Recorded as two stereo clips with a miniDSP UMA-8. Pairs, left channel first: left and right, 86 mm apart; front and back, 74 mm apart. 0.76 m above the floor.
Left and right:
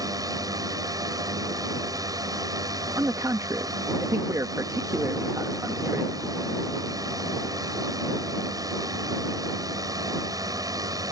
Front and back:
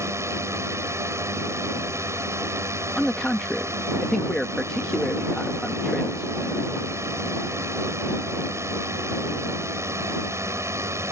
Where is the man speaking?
80° right.